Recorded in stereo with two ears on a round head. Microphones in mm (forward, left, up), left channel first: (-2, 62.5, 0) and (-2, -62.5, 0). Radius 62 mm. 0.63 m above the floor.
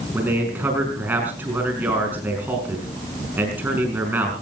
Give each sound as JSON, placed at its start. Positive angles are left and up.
{"t": 0.1, "sound": "a man speaking", "side_deg": -15, "distance_m": 5.5}